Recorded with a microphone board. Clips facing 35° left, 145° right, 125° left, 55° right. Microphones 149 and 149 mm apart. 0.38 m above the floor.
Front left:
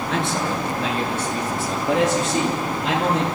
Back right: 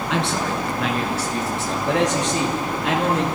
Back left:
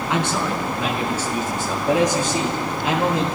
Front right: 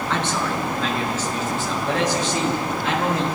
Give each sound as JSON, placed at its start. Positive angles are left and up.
{"t": 0.1, "sound": "a man speaking", "azimuth_deg": -155, "distance_m": 4.5}